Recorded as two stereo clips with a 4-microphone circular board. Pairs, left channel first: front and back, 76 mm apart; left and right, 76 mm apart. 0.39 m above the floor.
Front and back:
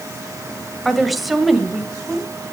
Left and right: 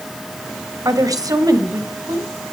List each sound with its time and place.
0.8 s a woman speaking: 90° right, 2 m